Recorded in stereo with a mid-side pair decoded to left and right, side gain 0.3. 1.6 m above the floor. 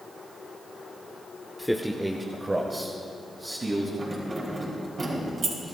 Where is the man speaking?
5° left, 0.9 m; by 3.9 s 40° right, 3 m.